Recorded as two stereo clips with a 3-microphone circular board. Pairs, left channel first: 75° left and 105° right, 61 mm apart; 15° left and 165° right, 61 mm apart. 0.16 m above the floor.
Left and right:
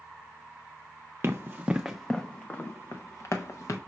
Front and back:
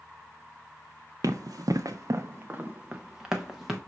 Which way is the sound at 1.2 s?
155° right.